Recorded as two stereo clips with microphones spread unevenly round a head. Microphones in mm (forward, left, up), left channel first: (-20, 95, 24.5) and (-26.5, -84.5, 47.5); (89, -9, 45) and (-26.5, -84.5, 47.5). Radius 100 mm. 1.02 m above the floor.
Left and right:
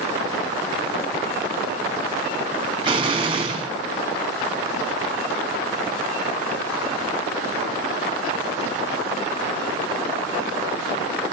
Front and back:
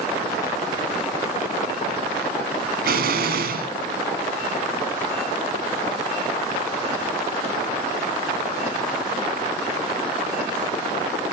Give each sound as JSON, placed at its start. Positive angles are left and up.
{"t": 2.8, "sound": "an explosion", "azimuth_deg": -155, "distance_m": 1.5}